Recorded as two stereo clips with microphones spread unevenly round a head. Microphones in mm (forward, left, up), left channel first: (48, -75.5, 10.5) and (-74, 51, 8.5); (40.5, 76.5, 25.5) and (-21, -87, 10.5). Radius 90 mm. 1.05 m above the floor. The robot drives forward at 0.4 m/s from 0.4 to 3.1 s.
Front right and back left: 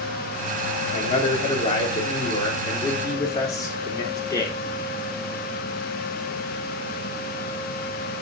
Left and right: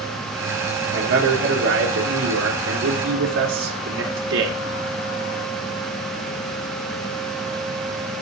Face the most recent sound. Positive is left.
turn(degrees=-115)